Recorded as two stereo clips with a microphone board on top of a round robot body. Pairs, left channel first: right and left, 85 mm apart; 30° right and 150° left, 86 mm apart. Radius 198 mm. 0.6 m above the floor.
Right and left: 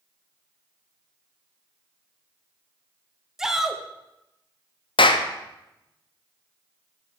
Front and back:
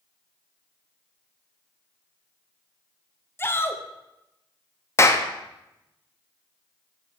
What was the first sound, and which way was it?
A shout, 10° left.